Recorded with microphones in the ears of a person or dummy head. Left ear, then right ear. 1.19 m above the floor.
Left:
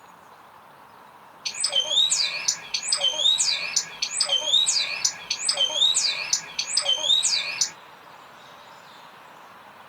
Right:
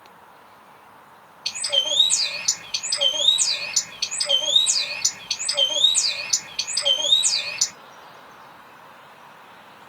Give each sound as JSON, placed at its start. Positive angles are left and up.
{"t": 1.4, "sound": "a bird", "side_deg": 50, "distance_m": 2.0}